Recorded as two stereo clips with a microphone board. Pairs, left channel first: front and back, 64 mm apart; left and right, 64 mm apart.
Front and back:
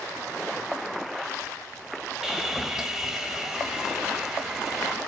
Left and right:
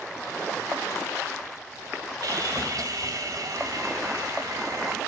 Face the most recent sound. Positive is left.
turn(degrees=-95)